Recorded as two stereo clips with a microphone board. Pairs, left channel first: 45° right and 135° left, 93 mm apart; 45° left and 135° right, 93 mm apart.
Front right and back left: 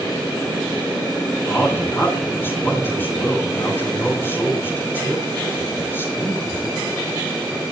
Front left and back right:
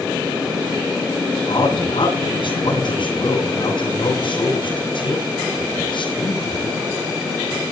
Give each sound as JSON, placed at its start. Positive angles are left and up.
{"t": 1.5, "sound": "a man speaking", "azimuth_deg": 20, "distance_m": 10.0}